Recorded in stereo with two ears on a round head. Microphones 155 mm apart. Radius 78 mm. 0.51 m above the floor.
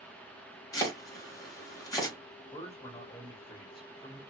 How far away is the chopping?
About 1.4 m.